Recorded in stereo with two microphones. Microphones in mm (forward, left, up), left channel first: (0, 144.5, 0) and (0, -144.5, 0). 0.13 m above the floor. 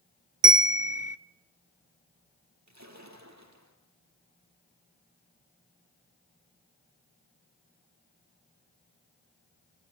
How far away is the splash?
About 3.5 m.